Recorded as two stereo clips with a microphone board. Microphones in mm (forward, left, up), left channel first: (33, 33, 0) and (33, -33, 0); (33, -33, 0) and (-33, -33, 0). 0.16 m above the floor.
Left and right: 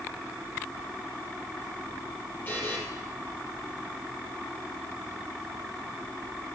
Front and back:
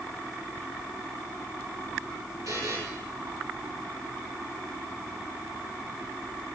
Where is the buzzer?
150° left, 3 m.